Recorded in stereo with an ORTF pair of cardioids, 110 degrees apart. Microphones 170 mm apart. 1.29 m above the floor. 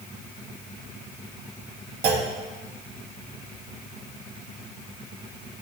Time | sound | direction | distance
2.0 | a clunk | 70° right | 1.4 m